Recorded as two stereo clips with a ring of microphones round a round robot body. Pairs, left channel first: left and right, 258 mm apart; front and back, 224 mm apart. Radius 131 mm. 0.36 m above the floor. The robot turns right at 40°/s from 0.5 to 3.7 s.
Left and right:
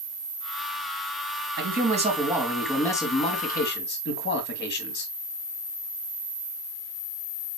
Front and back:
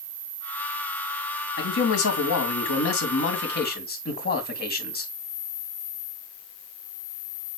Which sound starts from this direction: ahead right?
A man speaking, at 1.6 s.